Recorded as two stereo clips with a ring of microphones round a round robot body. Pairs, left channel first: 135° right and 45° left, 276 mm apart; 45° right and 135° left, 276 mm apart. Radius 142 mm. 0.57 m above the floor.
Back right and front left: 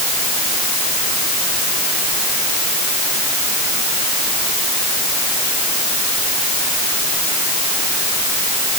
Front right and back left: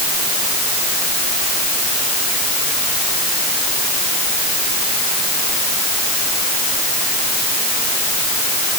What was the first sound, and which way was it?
Only background noise.